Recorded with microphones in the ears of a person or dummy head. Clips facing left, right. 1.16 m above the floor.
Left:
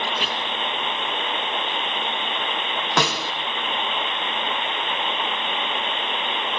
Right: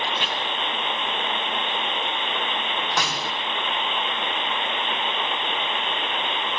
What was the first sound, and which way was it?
Chopping, centre (ahead or behind).